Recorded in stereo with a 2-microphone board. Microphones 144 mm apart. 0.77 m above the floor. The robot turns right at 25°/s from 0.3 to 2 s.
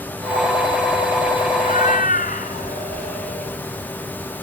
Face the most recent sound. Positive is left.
turn(degrees=75)  # may be behind; listen again after turning